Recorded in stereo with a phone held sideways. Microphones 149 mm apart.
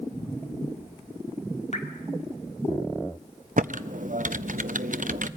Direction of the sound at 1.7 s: 50° left (ahead or behind).